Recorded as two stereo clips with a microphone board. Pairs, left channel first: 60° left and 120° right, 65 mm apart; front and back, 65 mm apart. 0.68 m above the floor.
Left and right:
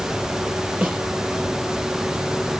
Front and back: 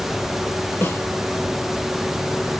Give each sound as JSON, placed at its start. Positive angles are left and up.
{"t": 0.8, "sound": "a snare drum", "azimuth_deg": -50, "distance_m": 6.5}